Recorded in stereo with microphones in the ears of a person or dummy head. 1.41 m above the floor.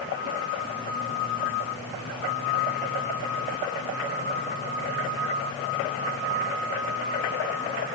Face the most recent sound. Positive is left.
No sound to turn to.